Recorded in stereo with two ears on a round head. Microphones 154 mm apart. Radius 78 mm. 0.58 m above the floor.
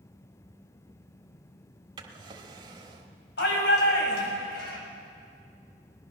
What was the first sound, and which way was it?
A drawer, 30° right (ahead or behind).